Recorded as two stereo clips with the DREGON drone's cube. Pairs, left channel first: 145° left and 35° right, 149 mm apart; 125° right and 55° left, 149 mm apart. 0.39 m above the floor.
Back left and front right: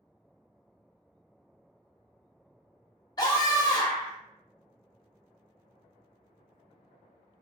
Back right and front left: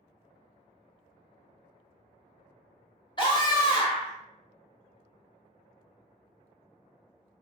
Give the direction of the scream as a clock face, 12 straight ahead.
5 o'clock.